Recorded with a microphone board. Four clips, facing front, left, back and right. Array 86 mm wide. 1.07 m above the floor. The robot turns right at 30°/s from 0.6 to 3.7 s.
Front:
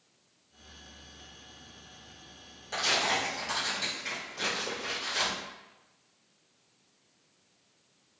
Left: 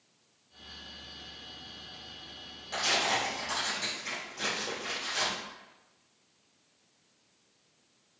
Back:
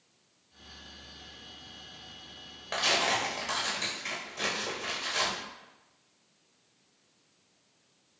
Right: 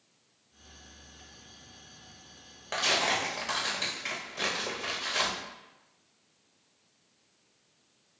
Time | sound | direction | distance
2.7 | tearing paper | 130° right | 1.2 m